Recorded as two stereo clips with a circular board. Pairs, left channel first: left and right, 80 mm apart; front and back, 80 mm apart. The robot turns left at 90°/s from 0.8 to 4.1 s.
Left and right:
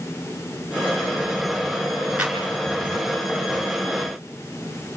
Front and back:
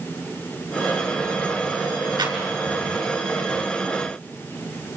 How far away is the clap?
About 5.5 m.